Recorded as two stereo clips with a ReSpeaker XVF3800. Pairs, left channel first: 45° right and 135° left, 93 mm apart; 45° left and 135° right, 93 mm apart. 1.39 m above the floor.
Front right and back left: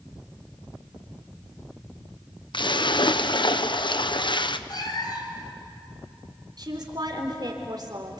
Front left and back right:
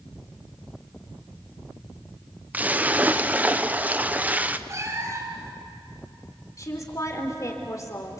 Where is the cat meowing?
80° right, 3 m.